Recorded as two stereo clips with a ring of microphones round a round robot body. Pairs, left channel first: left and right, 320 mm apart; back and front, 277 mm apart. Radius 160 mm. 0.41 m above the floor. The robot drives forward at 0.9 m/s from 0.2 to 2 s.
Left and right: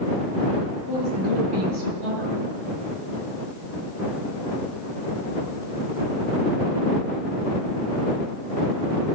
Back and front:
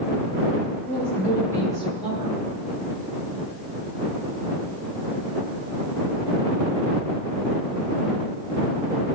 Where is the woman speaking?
95° right, 8 m; by 2.4 s 100° right, 8.5 m.